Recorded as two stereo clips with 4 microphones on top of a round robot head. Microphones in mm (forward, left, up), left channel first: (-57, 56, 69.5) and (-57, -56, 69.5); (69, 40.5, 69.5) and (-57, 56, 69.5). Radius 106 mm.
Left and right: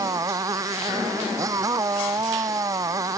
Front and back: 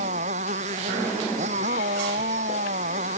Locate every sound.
0.0 s a motorcycle: 150° right